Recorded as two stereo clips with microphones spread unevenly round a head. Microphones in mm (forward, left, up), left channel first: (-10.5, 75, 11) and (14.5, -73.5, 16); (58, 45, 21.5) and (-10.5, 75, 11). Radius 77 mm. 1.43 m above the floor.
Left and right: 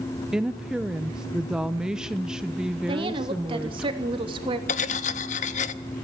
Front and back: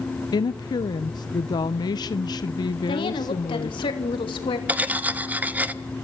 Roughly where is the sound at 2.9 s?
Ahead.